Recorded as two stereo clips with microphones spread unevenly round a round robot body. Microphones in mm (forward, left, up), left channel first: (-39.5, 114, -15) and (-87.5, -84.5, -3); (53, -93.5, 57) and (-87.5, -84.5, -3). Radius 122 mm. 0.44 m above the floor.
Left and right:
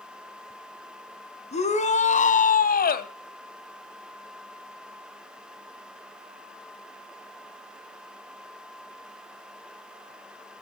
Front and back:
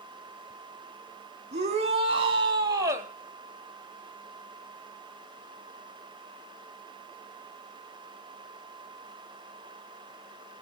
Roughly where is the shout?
Behind left.